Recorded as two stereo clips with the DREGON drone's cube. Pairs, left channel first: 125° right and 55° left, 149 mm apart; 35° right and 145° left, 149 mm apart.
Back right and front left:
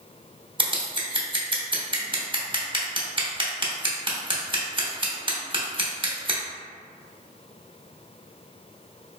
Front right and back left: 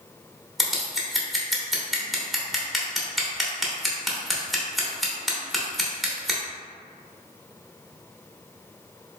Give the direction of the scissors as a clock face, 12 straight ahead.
10 o'clock.